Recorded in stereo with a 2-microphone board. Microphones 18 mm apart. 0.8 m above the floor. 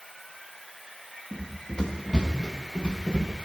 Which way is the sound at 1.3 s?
65° left (ahead or behind).